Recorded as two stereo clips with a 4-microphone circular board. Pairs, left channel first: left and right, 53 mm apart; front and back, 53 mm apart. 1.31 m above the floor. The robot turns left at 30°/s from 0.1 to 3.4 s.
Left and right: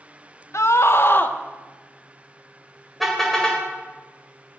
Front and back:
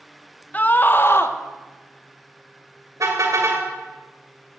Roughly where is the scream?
Ahead left.